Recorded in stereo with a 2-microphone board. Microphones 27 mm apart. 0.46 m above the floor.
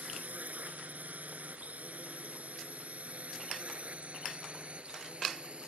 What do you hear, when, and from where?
0.0 s a drone: 80° right; by 5.7 s 45° right (ahead or behind)